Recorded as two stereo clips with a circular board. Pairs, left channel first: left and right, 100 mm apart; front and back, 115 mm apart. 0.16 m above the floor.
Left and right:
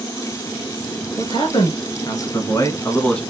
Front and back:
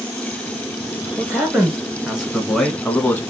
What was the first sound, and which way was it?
A man speaking, 110° left.